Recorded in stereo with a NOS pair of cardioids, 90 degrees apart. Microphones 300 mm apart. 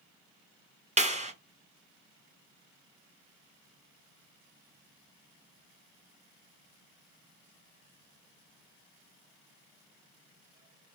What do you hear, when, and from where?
1.0 s a clap: 25° right, 0.8 m